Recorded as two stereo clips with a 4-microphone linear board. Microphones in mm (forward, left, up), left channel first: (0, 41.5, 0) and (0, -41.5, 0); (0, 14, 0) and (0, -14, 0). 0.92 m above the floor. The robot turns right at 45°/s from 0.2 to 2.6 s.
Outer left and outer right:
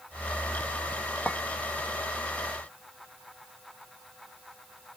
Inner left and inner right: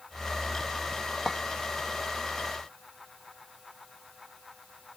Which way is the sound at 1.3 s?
15° left (ahead or behind).